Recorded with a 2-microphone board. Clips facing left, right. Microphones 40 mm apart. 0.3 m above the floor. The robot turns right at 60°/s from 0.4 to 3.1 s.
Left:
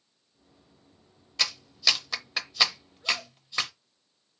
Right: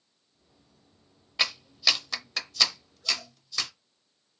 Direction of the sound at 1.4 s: 15° right (ahead or behind).